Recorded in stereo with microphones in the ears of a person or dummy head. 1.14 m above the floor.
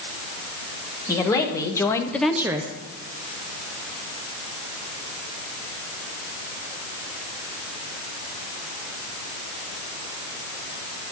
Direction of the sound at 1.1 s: 20° left (ahead or behind).